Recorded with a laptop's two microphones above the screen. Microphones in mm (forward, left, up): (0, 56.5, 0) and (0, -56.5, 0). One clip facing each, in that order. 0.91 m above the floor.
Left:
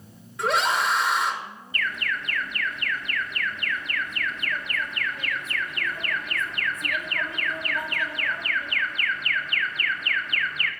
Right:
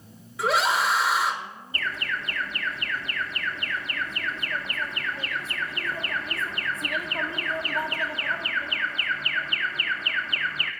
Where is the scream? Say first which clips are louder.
Even; centre (ahead or behind), 0.6 m.